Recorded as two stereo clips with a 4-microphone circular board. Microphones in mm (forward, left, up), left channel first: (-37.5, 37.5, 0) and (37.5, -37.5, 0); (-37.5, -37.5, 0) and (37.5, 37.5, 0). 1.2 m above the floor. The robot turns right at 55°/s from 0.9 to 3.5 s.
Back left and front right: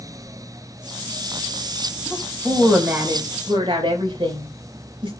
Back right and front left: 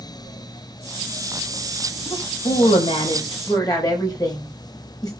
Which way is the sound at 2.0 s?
165° right.